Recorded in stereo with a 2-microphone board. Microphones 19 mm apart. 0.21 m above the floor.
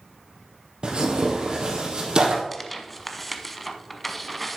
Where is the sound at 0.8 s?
45° right (ahead or behind), 2.5 m.